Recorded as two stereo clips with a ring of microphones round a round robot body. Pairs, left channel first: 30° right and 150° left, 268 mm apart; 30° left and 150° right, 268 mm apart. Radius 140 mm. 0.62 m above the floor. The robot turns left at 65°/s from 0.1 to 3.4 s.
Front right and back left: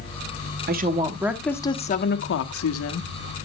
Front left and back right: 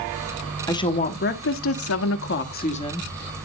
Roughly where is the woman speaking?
Left.